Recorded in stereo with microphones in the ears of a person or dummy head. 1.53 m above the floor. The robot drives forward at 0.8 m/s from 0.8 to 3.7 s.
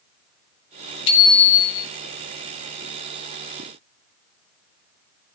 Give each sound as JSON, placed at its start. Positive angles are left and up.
{"t": 1.1, "sound": "a bicycle bell", "side_deg": 30, "distance_m": 2.5}